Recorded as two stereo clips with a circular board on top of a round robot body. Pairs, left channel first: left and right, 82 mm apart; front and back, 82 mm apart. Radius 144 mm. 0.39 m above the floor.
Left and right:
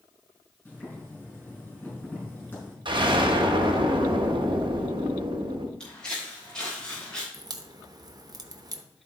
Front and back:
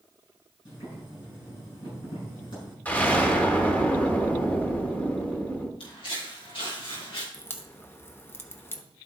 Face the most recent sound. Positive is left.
turn(degrees=-60)